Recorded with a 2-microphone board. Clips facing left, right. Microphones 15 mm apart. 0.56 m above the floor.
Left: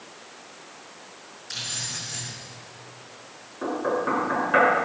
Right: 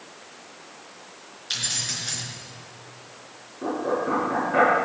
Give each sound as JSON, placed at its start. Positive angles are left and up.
{"t": 1.5, "sound": "keys jangling", "side_deg": -80, "distance_m": 5.0}
{"t": 3.6, "sound": "knocking", "side_deg": 55, "distance_m": 7.0}